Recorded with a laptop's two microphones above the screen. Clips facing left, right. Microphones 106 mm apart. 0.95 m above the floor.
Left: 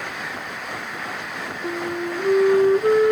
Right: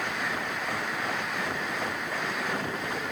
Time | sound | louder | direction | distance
1.6 | a flute | left 7 dB | 80° left | ?